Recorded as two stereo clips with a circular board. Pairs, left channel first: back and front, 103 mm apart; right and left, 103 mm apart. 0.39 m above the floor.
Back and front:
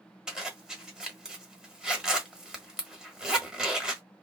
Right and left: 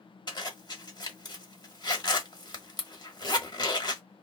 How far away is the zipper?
About 0.9 m.